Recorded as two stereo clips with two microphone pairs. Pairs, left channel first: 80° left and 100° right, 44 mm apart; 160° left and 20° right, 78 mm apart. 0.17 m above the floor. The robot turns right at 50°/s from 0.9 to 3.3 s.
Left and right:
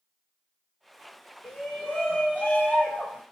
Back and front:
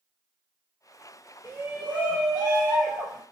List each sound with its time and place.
1.4 s a shout: 5° left, 1.3 m; by 3.2 s 95° left, 1.3 m